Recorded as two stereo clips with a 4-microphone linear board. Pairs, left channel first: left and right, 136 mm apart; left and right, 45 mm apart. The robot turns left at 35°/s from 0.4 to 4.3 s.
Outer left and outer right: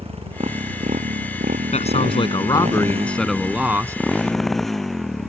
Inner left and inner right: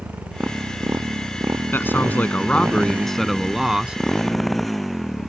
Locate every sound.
0.0 s a motorcycle: 45° right; by 5.3 s straight behind
1.7 s a man speaking: 55° left; by 4.0 s 20° right